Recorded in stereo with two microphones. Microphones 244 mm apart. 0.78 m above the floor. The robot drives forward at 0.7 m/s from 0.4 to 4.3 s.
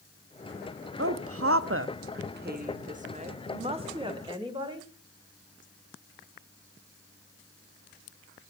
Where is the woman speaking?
60° right (ahead or behind), 0.9 m; by 4.9 s 20° right (ahead or behind), 2.5 m.